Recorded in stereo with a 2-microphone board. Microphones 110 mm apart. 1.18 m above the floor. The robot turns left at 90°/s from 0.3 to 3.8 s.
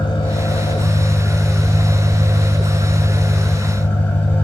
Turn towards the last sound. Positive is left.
turn(degrees=155)